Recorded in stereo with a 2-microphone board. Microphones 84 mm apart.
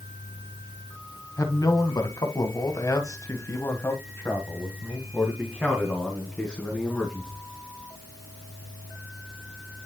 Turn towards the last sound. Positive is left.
turn(degrees=0)  # may be behind; listen again after turning